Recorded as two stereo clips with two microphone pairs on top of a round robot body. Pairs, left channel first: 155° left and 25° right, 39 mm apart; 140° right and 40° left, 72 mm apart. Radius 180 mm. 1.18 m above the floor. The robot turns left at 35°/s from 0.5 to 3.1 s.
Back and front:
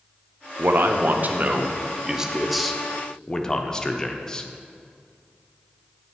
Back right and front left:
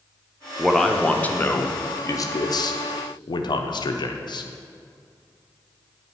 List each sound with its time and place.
0.6 s a man speaking: 45° right, 0.6 m; by 4.5 s 135° right, 0.6 m